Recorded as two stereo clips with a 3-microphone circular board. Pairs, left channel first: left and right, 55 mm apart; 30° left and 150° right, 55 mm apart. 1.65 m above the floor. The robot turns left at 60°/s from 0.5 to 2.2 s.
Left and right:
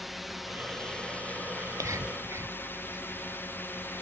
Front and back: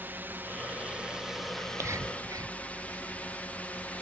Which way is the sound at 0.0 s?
Straight behind.